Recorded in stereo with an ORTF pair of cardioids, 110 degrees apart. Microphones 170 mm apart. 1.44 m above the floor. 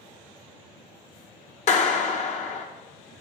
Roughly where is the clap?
Ahead left.